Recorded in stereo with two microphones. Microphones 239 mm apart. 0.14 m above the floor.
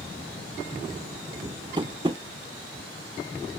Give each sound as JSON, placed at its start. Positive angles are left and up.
{"t": 1.8, "sound": "tapping", "side_deg": -20, "distance_m": 0.6}